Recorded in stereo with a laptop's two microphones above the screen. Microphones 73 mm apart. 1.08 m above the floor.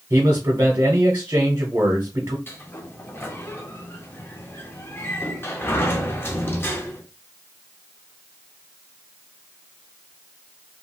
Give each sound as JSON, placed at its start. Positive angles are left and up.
{"t": 0.1, "sound": "a man speaking", "side_deg": -45, "distance_m": 0.7}
{"t": 2.5, "sound": "a sliding door", "side_deg": 30, "distance_m": 0.5}